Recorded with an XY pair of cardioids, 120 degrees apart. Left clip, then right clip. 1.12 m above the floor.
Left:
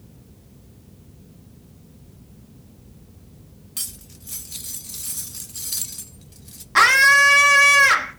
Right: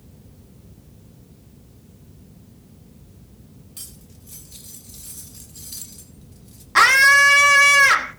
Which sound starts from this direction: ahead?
A scream, at 6.8 s.